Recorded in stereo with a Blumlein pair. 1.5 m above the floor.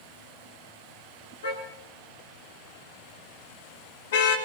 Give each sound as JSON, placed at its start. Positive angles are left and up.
{"t": 1.4, "sound": "a car horn", "azimuth_deg": 65, "distance_m": 7.0}